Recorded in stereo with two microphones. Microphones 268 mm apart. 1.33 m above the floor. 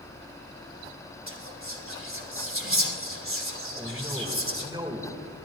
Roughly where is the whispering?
Right.